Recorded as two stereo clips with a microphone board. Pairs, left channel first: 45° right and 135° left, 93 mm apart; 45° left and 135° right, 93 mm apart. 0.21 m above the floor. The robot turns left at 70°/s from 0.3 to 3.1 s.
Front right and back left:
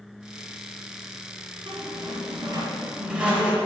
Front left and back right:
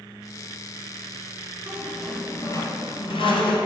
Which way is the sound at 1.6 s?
155° left.